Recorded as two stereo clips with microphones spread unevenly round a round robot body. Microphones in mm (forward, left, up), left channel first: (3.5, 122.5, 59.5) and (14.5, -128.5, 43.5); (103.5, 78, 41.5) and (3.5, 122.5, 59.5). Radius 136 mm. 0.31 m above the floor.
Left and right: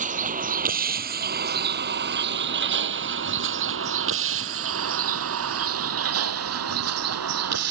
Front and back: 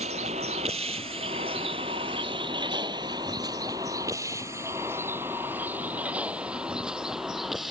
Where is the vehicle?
150° right; by 7.7 s 115° right.